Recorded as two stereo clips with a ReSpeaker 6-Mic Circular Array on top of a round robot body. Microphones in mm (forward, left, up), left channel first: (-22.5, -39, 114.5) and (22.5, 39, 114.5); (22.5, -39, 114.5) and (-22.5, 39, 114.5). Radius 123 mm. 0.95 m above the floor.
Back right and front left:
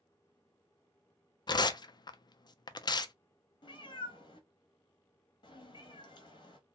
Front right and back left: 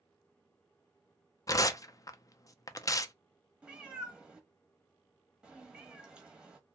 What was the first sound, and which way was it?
Tearing paper, 100° right.